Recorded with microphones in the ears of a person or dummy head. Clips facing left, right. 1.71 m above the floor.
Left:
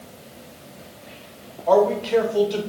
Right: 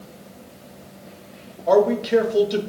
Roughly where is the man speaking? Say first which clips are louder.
Right 1 dB; right.